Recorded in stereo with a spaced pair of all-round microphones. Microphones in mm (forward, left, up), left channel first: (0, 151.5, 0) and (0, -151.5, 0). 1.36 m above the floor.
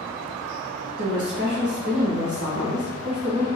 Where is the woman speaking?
70° right (ahead or behind), 1.4 m.